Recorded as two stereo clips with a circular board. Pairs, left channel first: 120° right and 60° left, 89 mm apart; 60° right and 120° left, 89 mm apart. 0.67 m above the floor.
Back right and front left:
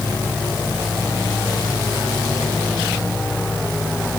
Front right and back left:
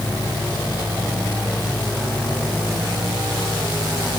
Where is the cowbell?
No cowbell in this recording.